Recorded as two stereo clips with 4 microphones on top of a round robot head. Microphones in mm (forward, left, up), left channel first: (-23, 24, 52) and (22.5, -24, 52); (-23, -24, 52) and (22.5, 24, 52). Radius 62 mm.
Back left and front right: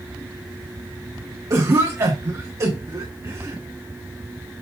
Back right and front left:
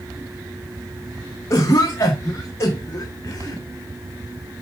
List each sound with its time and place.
1.5 s a cough: 85° right, 1.6 m